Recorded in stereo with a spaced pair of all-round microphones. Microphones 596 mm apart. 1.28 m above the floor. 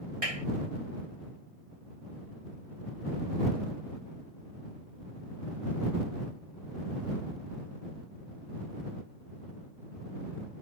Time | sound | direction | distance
0.2 | a clap | 85° right | ?